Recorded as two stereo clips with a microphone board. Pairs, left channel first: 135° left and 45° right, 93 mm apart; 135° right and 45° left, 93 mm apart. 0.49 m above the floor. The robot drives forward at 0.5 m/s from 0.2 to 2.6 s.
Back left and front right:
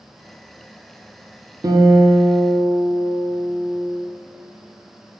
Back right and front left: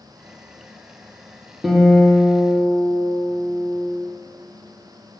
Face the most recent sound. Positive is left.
turn(degrees=-125)